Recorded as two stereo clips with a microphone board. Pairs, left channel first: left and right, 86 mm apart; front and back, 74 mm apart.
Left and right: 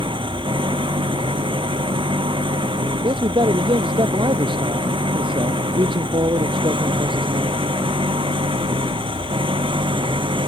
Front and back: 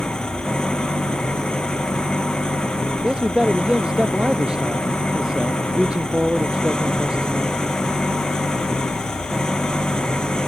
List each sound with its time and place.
0.0 s an engine running: 80° right
3.0 s a man speaking: 100° right